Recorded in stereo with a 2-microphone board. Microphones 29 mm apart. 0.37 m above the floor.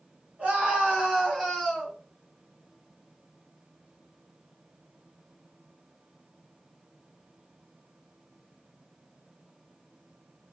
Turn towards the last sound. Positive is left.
turn(degrees=5)  # may be behind; listen again after turning